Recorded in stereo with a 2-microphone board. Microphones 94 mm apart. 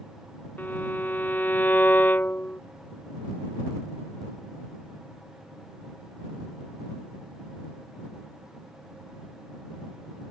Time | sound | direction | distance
0.6 | a violin | 20° left (ahead or behind) | ?